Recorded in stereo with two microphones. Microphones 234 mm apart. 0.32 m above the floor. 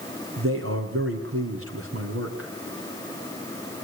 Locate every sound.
0.4 s a man speaking: 70° right (ahead or behind), 3.5 m